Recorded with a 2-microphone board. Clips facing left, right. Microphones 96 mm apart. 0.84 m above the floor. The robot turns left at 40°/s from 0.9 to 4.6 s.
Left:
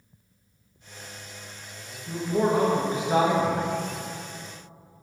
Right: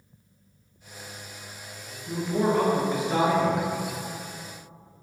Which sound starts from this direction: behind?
A man speaking, at 2.1 s.